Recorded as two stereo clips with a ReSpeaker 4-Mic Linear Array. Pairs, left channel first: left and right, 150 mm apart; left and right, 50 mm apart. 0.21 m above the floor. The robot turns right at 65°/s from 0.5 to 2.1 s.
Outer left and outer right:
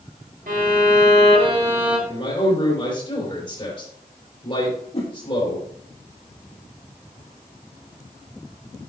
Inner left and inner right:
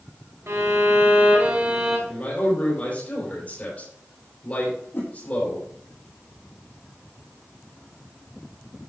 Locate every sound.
0.5 s a violin: 100° right, 2.5 m; by 2.0 s 5° right, 2.5 m
2.1 s a man speaking: 35° left (ahead or behind), 5.5 m
4.9 s a whoosh: 40° left (ahead or behind), 2.5 m